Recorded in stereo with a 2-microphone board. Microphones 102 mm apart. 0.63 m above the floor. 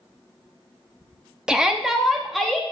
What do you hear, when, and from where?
1.5 s a shout: 5° right (ahead or behind), 0.9 m; by 2.6 s 5° left (ahead or behind), 0.8 m